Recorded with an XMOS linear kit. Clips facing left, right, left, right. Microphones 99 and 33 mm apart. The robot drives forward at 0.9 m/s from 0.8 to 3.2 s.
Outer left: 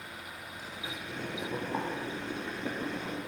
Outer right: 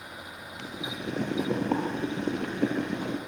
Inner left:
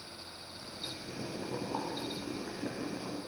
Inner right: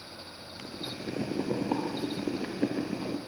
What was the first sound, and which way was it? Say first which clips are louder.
Boiling: outer right 7 dB, inner right 6 dB; 75° right (ahead or behind).